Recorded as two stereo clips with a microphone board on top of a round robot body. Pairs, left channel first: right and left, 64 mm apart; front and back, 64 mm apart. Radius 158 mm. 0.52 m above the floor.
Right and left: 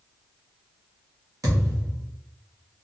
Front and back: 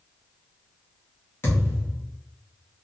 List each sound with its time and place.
1.4 s a thud: 55° left, 0.8 m